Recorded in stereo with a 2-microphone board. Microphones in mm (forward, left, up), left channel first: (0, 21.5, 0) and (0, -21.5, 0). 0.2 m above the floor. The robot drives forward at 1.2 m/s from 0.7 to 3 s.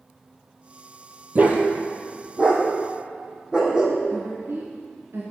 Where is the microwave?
I don't hear a microwave.